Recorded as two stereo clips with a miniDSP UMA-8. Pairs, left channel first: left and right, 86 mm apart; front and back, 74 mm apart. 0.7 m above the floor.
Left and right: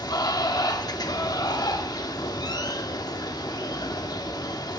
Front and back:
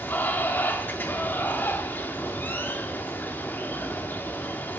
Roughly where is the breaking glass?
I don't hear breaking glass.